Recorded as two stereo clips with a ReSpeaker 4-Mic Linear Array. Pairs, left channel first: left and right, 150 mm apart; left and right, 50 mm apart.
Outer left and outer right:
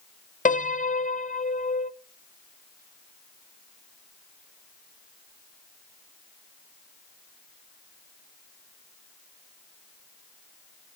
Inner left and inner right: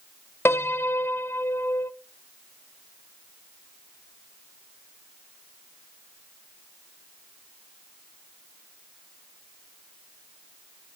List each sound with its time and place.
0.5 s a piano: 55° left (ahead or behind), 0.5 m